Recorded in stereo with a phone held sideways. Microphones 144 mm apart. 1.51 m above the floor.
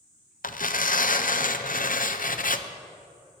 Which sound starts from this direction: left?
Tearing paper, at 0.4 s.